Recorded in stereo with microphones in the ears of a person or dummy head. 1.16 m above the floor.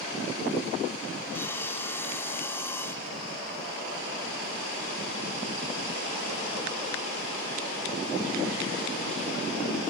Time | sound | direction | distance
1.3 | sawing | 5° left (ahead or behind) | ?